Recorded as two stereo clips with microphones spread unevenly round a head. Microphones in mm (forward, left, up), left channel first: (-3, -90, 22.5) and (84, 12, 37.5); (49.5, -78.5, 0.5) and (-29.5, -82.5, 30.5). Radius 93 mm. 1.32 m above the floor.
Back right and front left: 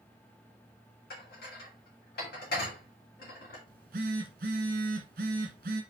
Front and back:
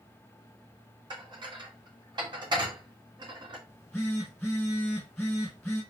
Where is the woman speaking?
No woman speaking in this recording.